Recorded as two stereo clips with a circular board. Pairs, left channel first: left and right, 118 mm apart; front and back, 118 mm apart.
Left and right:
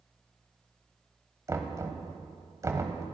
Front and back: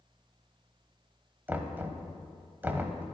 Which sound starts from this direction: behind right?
Knocking, at 1.5 s.